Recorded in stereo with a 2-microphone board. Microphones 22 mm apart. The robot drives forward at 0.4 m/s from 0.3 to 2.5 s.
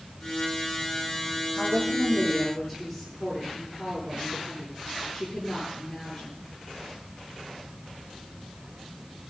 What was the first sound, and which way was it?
A woman speaking, 5° left (ahead or behind).